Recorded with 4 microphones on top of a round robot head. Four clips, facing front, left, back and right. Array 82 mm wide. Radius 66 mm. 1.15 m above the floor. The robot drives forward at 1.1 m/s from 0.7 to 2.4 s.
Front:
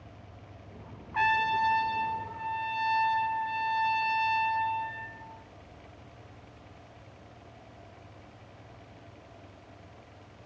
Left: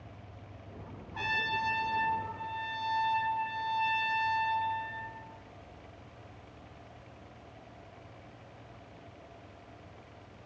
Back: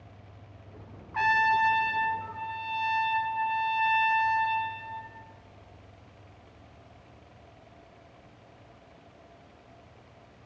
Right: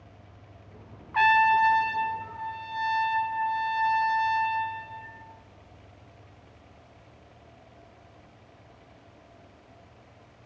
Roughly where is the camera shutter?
I don't hear a camera shutter.